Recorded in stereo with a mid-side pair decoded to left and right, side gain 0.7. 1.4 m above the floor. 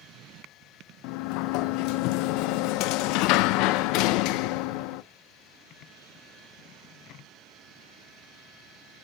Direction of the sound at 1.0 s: 65° left.